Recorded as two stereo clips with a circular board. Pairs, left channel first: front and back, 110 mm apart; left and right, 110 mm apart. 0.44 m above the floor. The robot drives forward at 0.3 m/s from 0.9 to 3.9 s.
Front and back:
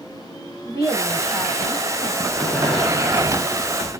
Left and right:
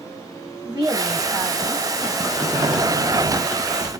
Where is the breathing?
75° right, 0.8 m; by 3.9 s 135° right, 0.9 m.